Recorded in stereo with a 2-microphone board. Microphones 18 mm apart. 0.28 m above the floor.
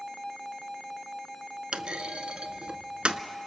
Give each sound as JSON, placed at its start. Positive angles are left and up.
{"t": 1.7, "sound": "a clunk", "side_deg": -70, "distance_m": 0.8}